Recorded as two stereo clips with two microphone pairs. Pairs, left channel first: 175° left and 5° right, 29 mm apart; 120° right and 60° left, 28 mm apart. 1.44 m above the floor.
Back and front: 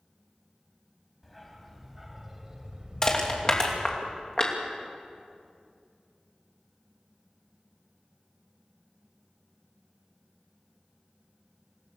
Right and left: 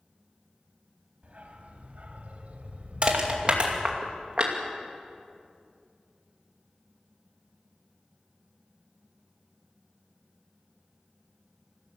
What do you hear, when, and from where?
1.2 s a dog barking: 90° left, 2.5 m; by 4.0 s 20° left, 2 m
3.0 s crushing: 110° left, 2.5 m